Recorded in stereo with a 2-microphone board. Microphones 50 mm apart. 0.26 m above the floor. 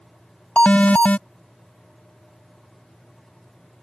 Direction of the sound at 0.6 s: 30° left (ahead or behind).